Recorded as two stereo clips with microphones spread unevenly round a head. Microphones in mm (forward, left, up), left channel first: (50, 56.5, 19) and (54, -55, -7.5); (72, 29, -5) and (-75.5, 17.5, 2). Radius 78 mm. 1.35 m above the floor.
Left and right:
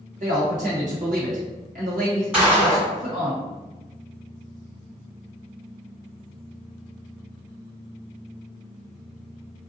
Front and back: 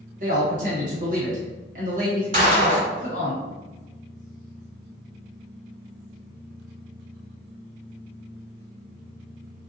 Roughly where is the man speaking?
Behind right.